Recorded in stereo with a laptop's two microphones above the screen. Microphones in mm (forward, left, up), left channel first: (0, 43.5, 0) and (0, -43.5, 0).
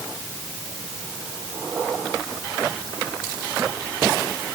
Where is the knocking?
I don't hear knocking.